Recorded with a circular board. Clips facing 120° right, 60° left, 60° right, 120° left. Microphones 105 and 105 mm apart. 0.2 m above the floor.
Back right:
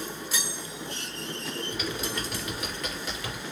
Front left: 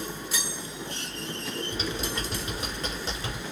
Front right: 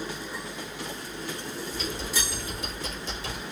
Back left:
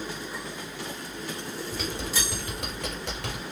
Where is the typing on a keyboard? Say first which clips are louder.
Front left 1 dB, back left 1 dB; 120° left, 1.6 m.